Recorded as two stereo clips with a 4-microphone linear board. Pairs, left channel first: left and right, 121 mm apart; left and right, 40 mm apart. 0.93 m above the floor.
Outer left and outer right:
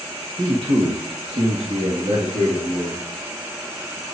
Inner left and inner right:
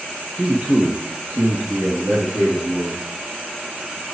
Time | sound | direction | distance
0.4 | a man speaking | 30° right (ahead or behind) | 1.0 m